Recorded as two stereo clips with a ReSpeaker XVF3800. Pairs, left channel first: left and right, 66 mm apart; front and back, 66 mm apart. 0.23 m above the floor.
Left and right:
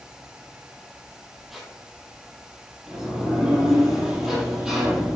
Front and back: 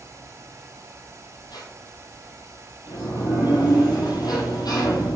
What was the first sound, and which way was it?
A squeak, straight ahead.